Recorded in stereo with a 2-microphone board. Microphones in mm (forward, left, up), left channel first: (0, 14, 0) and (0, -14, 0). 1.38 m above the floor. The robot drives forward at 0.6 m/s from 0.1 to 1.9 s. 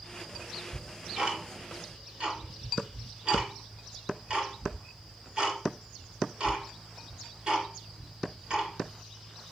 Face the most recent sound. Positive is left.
turn(degrees=-30)  # may be behind; listen again after turning